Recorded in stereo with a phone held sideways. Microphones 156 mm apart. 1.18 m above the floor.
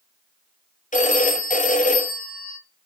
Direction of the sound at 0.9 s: 55° left (ahead or behind).